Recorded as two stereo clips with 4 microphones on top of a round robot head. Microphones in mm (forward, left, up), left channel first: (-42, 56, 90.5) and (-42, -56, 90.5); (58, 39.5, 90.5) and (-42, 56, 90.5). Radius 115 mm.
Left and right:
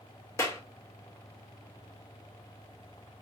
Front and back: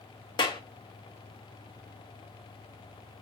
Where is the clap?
30° left, 0.9 m.